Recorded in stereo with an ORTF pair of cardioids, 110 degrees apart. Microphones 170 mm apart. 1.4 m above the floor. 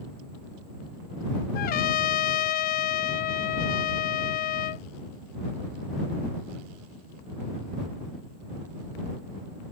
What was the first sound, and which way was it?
A trumpet, 60° left.